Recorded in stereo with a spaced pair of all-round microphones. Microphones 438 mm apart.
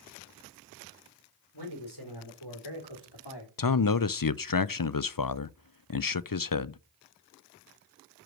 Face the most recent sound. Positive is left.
turn(degrees=50)  # may be behind; listen again after turning